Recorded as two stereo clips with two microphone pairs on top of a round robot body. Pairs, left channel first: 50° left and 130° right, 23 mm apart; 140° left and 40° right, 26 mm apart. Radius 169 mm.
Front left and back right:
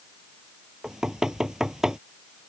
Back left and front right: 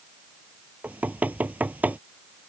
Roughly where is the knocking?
Ahead right.